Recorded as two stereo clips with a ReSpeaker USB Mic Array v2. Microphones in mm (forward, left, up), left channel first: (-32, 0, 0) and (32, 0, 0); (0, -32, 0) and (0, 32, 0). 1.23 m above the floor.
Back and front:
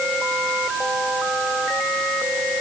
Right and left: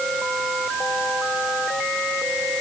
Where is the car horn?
No car horn in this recording.